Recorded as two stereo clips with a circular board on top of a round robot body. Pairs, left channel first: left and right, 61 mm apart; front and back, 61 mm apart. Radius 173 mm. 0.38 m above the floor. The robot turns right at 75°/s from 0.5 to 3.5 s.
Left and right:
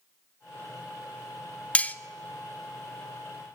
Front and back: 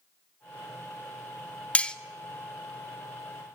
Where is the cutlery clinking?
45° left, 0.5 m; by 1.9 s 60° left, 0.5 m.